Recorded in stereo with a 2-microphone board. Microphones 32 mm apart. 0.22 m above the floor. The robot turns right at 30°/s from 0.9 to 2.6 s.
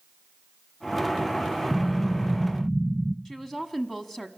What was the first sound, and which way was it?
An explosion, 25° left (ahead or behind).